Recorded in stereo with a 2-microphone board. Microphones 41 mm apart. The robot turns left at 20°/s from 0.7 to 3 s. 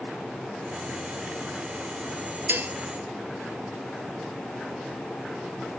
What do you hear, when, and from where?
2.5 s dishes clattering: 60° right (ahead or behind); by 2.7 s 55° right (ahead or behind)